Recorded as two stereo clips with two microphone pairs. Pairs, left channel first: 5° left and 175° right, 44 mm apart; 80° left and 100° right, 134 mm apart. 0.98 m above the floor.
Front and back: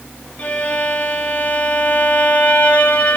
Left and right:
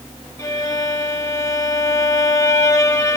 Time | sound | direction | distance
0.4 | a violin | 30° left | 0.9 m